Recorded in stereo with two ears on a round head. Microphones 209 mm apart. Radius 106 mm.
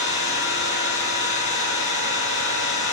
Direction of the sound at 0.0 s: 30° left (ahead or behind).